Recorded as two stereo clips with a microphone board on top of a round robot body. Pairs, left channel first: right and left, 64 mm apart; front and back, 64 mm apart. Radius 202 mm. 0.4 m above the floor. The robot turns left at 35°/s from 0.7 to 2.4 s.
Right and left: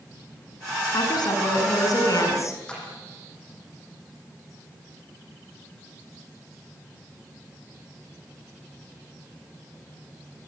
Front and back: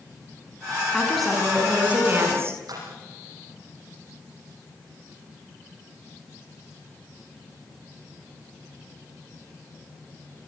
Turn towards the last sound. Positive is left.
turn(degrees=-165)